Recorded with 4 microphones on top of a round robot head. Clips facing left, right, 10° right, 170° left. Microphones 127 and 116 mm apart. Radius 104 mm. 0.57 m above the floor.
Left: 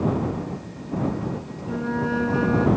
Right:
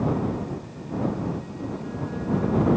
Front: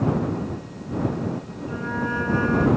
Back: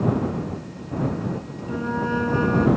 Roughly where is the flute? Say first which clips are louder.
Left 10 dB, back 3 dB; left.